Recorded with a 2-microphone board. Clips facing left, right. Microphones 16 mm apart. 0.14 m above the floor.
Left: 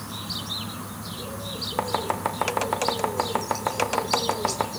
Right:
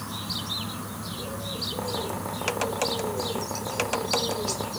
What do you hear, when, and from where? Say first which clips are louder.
1.8 s chopping: left 5 dB; 65° left (ahead or behind), 3.5 m